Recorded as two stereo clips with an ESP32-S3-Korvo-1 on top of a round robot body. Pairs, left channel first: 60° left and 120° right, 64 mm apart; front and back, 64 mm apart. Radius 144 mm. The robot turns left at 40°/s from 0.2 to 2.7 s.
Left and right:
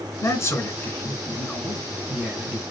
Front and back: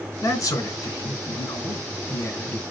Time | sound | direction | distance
0.2 | a man speaking | 30° left | 3 m